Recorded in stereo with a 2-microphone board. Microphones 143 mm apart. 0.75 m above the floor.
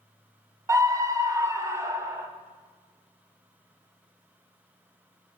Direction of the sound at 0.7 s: 20° right (ahead or behind).